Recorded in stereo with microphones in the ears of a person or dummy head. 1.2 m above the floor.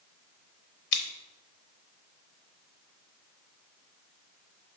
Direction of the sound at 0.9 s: 65° left (ahead or behind).